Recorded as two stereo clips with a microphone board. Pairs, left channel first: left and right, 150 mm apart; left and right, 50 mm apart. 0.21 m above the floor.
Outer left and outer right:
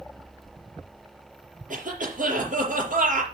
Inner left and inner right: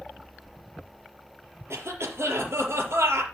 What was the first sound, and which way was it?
A cough, 65° right (ahead or behind).